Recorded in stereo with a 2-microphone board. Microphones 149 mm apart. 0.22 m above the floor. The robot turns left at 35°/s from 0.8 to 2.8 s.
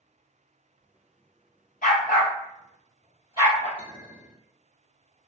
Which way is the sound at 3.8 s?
40° left (ahead or behind).